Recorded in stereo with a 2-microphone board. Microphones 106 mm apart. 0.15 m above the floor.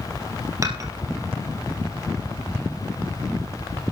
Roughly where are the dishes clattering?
Right.